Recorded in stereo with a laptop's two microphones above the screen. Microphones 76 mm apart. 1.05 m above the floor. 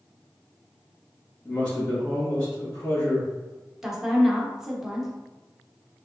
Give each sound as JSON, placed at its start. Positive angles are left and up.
{"t": 1.4, "sound": "a man speaking", "side_deg": 45, "distance_m": 1.4}
{"t": 3.8, "sound": "a woman speaking", "side_deg": -5, "distance_m": 0.7}